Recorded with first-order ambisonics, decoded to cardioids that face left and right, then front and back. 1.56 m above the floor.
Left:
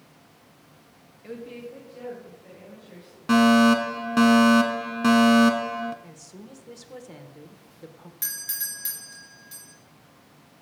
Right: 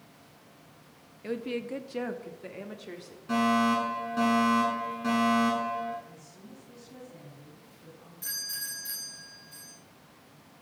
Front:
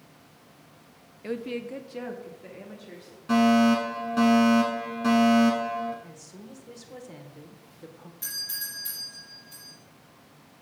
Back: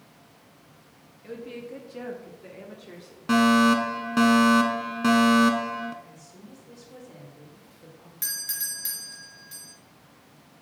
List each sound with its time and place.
1.2 s a woman speaking: 30° right, 0.6 m; by 3.2 s 100° right, 1.6 m
3.3 s a fire alarm: 120° left, 1.0 m
6.0 s a woman speaking: 65° left, 1.3 m
8.2 s a doorbell: 130° left, 3 m